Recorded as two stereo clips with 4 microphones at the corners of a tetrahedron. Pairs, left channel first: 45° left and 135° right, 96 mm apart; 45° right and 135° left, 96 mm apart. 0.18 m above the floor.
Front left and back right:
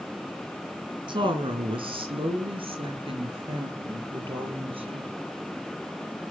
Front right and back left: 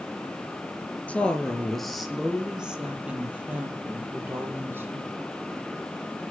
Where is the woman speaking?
120° right, 2.5 m; by 5.1 s 160° right, 6.5 m.